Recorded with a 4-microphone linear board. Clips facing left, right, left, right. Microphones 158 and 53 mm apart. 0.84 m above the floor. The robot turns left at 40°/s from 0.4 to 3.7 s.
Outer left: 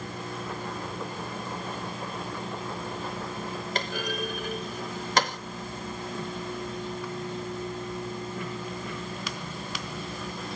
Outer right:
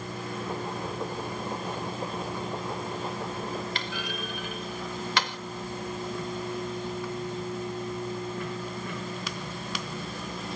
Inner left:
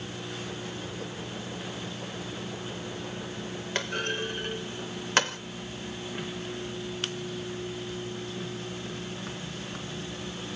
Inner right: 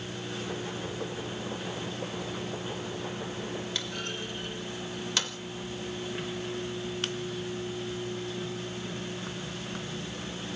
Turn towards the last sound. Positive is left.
turn(degrees=40)  # may be behind; listen again after turning